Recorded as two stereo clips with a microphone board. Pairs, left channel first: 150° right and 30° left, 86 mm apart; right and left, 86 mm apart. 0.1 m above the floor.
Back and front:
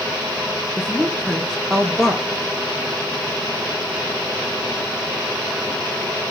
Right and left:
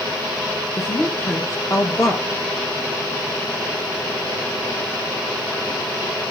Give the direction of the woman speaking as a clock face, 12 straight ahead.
2 o'clock.